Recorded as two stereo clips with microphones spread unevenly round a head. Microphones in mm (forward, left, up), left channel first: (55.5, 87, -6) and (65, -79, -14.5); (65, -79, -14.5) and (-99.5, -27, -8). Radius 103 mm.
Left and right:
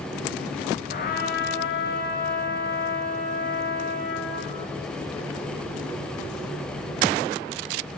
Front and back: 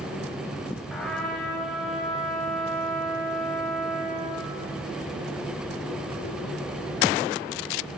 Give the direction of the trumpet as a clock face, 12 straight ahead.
10 o'clock.